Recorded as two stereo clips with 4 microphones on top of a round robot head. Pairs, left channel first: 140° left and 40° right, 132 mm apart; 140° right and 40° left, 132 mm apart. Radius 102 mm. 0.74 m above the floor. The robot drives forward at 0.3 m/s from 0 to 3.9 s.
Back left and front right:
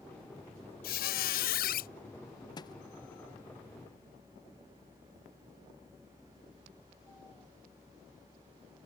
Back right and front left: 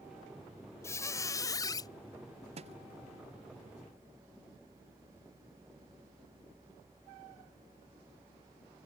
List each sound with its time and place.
0.8 s a squeak: 150° left; by 1.9 s 155° left
2.6 s a thud: 80° left